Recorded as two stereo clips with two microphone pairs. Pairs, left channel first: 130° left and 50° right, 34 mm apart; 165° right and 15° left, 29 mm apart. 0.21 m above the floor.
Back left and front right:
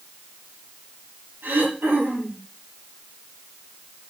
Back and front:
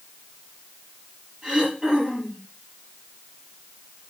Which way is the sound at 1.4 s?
40° right.